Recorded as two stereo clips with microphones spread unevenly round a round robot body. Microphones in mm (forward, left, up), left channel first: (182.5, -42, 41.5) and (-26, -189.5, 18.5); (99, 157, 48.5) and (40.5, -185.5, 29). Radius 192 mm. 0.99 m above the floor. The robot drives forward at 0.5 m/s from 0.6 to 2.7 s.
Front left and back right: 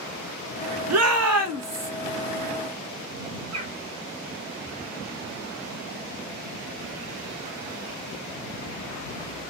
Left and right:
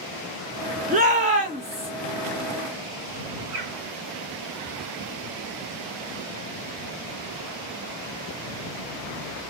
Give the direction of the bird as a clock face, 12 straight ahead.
4 o'clock.